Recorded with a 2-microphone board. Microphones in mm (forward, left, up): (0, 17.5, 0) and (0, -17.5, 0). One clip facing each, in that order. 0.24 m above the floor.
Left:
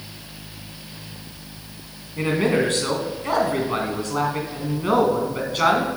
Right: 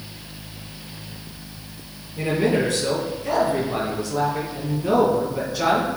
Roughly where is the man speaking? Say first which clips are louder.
Even; left.